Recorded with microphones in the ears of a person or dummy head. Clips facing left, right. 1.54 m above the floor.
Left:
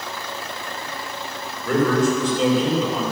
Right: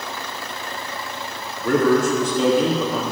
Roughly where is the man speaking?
Right.